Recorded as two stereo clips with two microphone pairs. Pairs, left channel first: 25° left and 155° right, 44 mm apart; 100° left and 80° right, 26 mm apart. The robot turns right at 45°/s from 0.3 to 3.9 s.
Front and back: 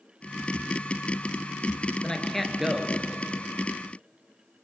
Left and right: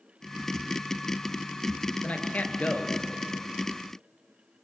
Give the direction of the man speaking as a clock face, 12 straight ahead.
9 o'clock.